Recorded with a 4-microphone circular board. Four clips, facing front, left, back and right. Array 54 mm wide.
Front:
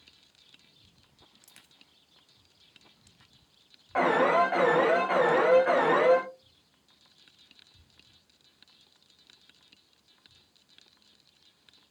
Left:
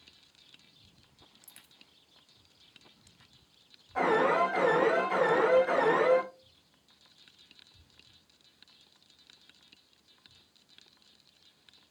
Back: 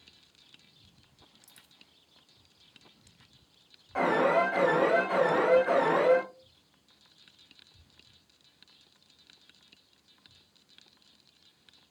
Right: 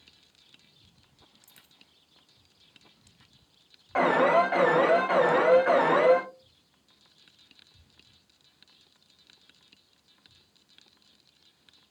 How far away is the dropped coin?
About 1.2 m.